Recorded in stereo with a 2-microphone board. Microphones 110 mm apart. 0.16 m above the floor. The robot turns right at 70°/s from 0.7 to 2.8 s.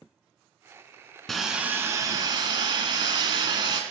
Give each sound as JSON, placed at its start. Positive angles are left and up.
{"t": 1.3, "sound": "sawing", "azimuth_deg": 175, "distance_m": 0.8}